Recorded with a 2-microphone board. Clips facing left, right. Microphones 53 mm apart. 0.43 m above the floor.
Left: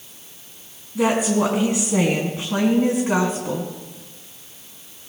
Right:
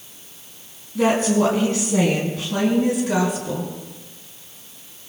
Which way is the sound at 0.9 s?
10° left (ahead or behind).